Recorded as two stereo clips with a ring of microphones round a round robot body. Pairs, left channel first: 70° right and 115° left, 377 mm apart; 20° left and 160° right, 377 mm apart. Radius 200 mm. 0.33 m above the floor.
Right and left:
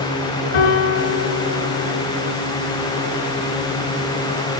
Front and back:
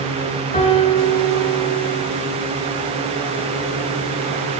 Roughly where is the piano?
Ahead right.